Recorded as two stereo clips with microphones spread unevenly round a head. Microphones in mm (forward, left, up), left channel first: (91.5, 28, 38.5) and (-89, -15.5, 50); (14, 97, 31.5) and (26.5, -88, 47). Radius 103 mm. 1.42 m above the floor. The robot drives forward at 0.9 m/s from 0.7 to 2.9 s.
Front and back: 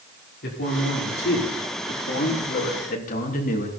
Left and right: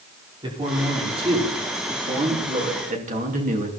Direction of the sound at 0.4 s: 20° right.